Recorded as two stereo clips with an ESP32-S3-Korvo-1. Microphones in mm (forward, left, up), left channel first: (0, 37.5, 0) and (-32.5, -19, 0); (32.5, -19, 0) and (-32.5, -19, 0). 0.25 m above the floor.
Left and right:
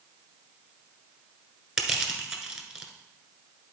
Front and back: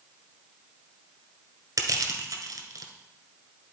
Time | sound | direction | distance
1.8 | crushing | 160° left | 1.4 m